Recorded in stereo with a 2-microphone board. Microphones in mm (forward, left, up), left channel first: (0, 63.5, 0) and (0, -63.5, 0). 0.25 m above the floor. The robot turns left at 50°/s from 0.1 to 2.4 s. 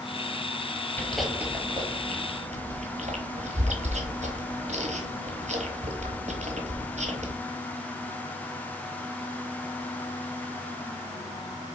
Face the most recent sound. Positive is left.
turn(degrees=-60)  # may be behind; listen again after turning